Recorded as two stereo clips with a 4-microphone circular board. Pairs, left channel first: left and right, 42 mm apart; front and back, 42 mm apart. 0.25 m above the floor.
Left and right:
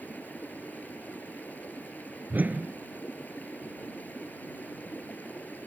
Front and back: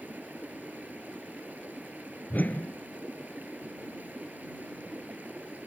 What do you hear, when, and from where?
0.0 s running water: 135° left
2.3 s a whoosh: 45° right